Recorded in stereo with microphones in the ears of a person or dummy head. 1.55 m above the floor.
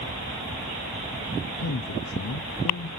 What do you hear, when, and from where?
1.6 s a man speaking: 75° left (ahead or behind), 0.7 m